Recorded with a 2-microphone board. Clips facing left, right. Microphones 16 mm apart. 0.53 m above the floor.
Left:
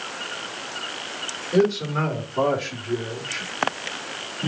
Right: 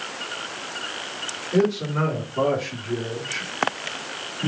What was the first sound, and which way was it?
A man speaking, 20° left (ahead or behind).